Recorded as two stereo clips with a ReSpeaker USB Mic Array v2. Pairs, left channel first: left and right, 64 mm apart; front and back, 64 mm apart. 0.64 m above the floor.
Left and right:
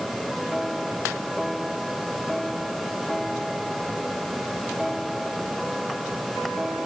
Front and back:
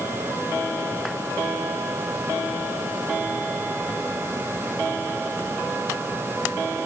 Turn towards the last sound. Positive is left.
No sound to turn to.